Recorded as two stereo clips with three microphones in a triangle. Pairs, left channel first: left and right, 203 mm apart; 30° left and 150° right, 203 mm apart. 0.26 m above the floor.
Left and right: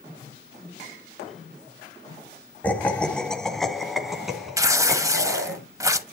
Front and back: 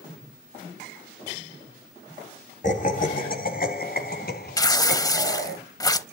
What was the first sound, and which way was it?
Laughter, 15° left.